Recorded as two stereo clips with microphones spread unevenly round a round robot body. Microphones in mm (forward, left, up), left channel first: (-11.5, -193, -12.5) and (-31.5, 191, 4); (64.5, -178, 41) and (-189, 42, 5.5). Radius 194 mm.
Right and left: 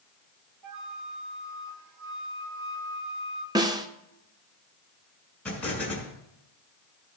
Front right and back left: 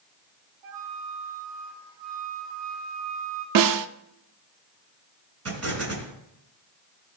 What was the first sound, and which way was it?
A flute, 135° left.